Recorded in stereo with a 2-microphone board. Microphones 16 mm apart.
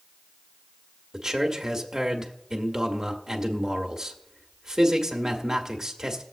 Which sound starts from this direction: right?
A man speaking, at 1.1 s.